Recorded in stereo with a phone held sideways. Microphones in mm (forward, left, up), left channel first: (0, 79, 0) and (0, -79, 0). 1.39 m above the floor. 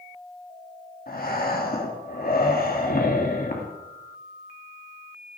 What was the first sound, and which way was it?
Breathing, 65° left (ahead or behind).